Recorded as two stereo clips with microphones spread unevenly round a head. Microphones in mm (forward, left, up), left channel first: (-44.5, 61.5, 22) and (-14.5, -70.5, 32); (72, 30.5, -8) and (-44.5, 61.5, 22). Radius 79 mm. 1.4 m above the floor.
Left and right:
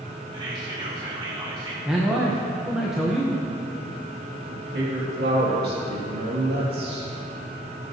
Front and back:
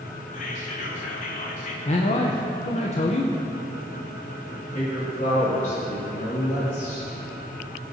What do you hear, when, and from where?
0.3 s whispering: 15° right, 1.5 m
1.9 s a man speaking: 10° left, 0.9 m
4.5 s a woman speaking: 60° right, 2.5 m